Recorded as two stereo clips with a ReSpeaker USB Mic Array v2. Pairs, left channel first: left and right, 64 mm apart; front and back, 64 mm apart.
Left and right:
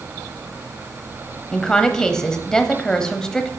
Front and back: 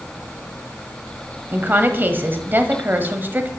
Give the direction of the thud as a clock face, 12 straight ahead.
No thud in this recording.